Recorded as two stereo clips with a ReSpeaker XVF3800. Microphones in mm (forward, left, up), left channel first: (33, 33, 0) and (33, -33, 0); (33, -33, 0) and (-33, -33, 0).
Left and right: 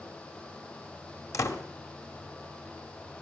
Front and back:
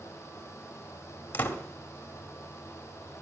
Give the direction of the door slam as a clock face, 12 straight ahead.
10 o'clock.